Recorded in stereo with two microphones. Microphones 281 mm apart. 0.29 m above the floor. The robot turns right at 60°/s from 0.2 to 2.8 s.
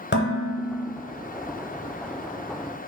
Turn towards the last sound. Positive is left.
turn(degrees=-80)